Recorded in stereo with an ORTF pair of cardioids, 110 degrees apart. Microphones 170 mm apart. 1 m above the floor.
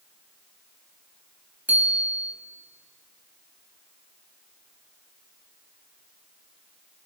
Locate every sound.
1.7 s a bicycle bell: 10° right, 4.5 m